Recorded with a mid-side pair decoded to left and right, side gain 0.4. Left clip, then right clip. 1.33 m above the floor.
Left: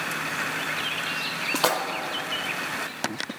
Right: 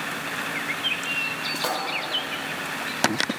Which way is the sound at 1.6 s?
60° left.